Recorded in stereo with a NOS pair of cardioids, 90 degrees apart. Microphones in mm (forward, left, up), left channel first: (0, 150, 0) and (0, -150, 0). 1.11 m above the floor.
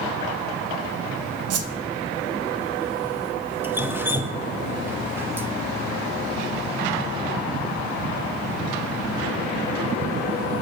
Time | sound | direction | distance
1.5 | a whoosh | 55° right | 0.6 m
3.6 | dripping | 5° right | 0.8 m